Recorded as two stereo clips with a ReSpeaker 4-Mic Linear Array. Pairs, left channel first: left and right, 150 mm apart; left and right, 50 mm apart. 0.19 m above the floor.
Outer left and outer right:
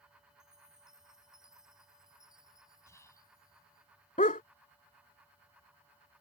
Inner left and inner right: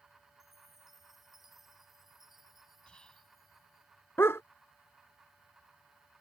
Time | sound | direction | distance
0.4 | a chime | 5° right (ahead or behind) | ?
2.9 | whispering | 20° left (ahead or behind) | ?
4.2 | a dog barking | 60° left (ahead or behind) | ?